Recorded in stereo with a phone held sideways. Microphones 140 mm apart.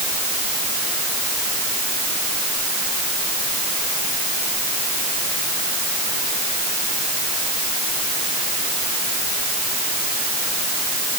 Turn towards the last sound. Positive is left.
No sound to turn to.